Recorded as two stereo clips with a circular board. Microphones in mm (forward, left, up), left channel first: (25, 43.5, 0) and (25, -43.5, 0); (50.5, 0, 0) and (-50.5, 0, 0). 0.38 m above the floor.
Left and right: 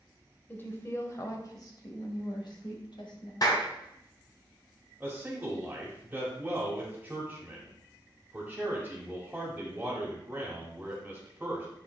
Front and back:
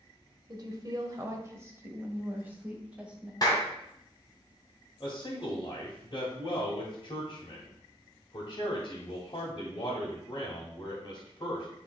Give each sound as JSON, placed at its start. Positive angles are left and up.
{"t": 0.5, "sound": "a woman speaking", "azimuth_deg": 150, "distance_m": 1.3}
{"t": 3.4, "sound": "a clap", "azimuth_deg": 50, "distance_m": 2.0}
{"t": 5.0, "sound": "a man speaking", "azimuth_deg": -25, "distance_m": 1.7}